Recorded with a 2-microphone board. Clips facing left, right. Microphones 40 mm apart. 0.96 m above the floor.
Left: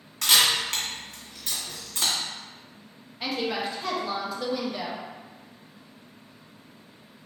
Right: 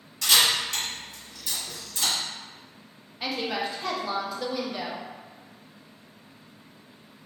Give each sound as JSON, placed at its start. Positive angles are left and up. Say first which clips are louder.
{"t": 0.2, "sound": "a camera shutter", "louder": "even", "side_deg": 60, "distance_m": 1.5}
{"t": 3.2, "sound": "a woman speaking", "louder": "left 1 dB", "side_deg": 0, "distance_m": 0.7}